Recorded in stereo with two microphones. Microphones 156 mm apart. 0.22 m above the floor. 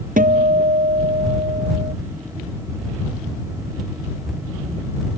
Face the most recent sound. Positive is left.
turn(degrees=-65)  # may be behind; listen again after turning